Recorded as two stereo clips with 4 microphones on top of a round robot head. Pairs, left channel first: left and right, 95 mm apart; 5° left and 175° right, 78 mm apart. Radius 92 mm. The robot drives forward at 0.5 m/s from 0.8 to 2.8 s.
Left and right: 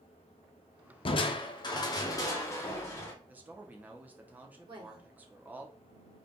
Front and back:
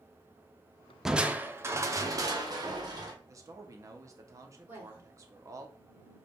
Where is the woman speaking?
115° right, 2.5 m.